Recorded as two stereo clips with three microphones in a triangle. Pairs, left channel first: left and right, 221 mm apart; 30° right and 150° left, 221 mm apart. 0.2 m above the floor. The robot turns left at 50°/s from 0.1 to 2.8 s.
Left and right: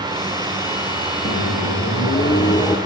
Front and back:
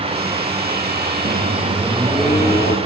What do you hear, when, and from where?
1.2 s a microwave: 105° left, 5.5 m; by 2.8 s 30° left, 5.5 m